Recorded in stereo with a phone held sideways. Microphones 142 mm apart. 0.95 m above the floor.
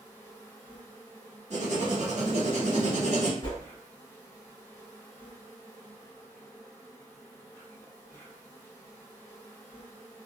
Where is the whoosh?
40° left (ahead or behind), 1.6 m.